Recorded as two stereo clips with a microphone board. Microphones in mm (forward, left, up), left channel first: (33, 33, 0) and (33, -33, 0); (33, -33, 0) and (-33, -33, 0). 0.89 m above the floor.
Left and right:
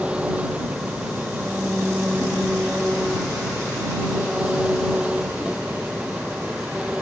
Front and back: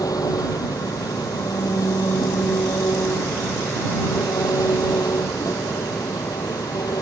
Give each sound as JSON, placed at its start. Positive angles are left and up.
{"t": 0.0, "sound": "an engine running", "azimuth_deg": -15}